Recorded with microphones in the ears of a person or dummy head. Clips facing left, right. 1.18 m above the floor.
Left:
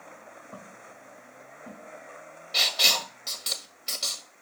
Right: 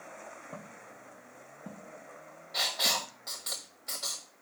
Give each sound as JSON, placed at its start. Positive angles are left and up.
{"t": 0.5, "sound": "footsteps", "side_deg": -10, "distance_m": 2.5}
{"t": 2.5, "sound": "writing", "side_deg": 45, "distance_m": 1.3}